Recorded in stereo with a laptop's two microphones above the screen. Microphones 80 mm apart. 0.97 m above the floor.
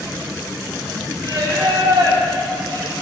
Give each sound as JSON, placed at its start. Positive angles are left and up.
{"t": 1.2, "sound": "singing", "side_deg": -85, "distance_m": 4.0}